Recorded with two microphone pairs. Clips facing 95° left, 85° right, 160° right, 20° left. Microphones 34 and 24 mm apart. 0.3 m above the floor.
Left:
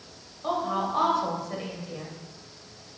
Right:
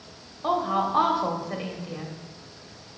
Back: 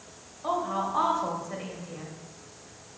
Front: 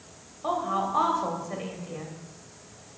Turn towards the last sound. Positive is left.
turn(degrees=-50)